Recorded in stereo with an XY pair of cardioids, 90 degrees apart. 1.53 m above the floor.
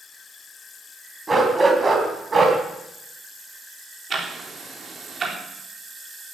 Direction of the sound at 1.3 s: 20° right.